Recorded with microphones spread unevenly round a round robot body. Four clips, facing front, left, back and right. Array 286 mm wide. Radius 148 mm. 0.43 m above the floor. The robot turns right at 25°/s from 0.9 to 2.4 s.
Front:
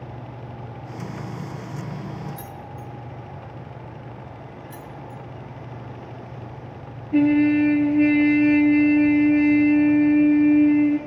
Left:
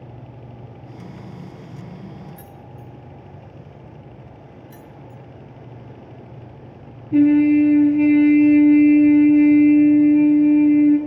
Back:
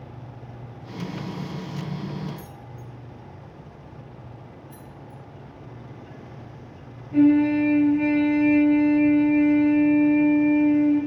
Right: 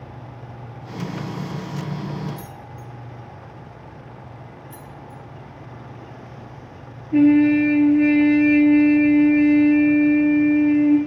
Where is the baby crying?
I don't hear a baby crying.